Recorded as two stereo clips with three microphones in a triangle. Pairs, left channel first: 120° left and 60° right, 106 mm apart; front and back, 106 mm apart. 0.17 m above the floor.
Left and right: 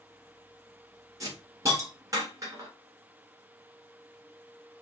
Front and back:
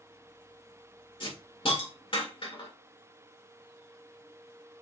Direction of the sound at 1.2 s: 10° right.